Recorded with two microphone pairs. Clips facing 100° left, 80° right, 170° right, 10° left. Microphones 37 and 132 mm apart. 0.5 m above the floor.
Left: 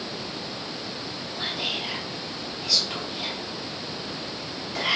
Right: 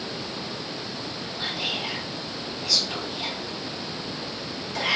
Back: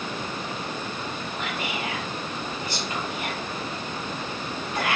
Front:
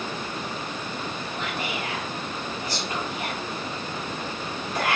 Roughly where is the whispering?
Ahead left.